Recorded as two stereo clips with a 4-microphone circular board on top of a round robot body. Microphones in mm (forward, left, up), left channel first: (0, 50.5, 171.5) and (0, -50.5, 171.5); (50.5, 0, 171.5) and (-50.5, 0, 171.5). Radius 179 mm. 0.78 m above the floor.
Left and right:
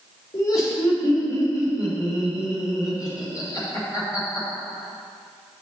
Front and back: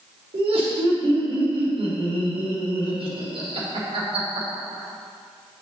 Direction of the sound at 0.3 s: 145° left.